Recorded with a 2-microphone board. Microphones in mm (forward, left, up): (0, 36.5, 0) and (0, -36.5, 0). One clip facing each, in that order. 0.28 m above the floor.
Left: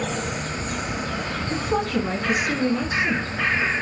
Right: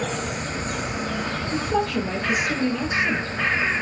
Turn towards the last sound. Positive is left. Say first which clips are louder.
# even
turn(degrees=60)  # may be behind; listen again after turning